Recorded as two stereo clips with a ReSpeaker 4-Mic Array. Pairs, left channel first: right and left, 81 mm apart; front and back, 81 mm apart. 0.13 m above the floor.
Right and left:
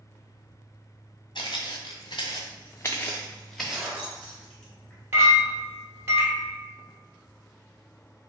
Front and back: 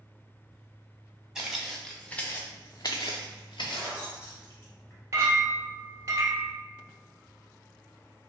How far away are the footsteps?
About 0.9 m.